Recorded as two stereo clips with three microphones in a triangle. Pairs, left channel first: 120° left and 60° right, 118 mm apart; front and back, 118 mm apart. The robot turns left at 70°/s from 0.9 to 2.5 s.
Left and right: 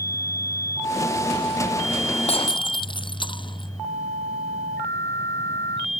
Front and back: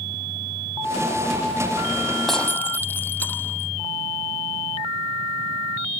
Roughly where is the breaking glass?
Left.